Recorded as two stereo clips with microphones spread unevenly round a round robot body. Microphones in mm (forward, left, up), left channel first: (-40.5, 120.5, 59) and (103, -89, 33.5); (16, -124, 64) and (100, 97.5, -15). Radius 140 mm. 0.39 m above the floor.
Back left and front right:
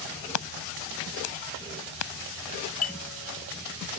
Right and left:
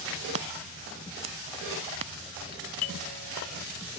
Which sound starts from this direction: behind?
A doorbell, at 2.5 s.